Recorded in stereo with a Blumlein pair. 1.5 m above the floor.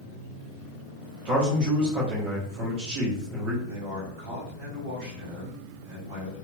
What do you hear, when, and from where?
1.2 s a man speaking: 45° right, 1.2 m
3.7 s a man speaking: 45° right, 1.9 m